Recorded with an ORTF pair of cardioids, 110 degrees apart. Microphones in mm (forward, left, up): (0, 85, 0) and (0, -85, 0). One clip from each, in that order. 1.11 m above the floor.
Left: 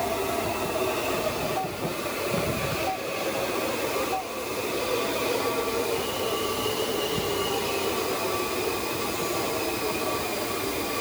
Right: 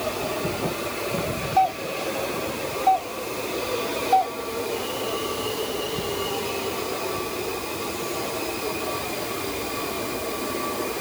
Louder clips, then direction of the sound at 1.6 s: Right 8 dB; 65° right.